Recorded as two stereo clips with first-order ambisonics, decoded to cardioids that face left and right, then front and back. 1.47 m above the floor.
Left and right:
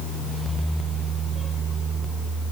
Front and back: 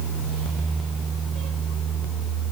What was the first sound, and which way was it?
Only background noise.